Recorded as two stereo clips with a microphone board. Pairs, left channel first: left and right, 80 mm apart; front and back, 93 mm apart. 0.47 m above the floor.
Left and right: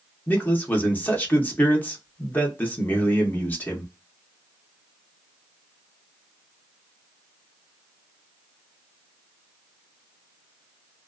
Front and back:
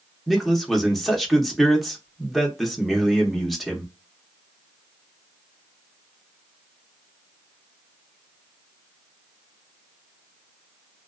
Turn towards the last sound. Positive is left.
turn(degrees=90)